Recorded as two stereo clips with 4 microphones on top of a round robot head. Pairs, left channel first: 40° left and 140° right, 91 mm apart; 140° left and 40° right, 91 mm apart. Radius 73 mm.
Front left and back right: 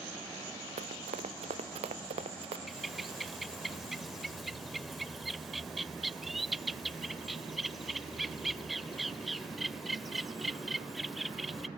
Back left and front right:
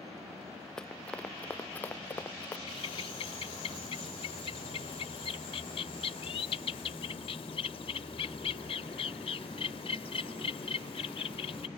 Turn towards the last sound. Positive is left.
turn(degrees=135)